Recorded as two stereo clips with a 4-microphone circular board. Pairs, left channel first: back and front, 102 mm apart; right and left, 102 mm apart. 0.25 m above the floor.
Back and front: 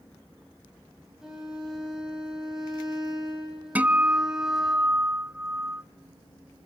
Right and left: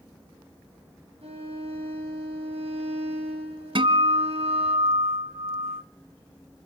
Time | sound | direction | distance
1.2 | a violin | 85° left | 5.5 m
3.8 | a guitar | 70° left | 0.8 m